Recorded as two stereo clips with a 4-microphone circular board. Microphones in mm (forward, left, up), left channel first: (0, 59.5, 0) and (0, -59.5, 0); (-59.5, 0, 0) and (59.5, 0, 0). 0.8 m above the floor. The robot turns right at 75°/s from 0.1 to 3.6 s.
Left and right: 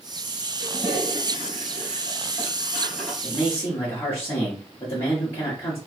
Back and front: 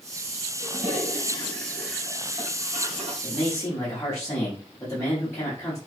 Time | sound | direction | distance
0.6 | a toilet flushing | straight behind | 2 m
3.2 | a man speaking | 90° left | 1.2 m